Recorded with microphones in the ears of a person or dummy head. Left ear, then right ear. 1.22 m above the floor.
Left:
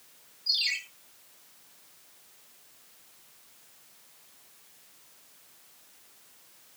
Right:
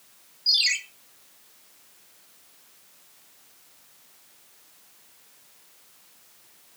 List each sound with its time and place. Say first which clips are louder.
0.5 s a ringtone: right 6 dB; 60° right (ahead or behind), 2 m